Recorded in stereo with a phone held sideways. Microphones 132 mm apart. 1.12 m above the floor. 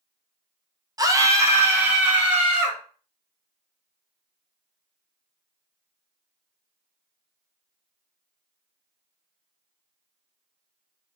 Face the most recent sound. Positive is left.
turn(degrees=-5)  # may be behind; listen again after turning